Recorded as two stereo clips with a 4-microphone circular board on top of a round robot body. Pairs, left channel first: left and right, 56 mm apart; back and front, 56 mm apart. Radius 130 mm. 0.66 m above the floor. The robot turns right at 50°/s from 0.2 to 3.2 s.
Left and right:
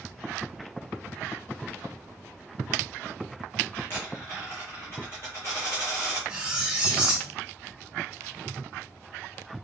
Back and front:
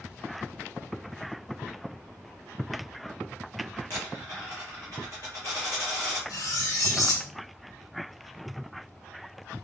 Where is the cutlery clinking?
165° right, 0.9 m.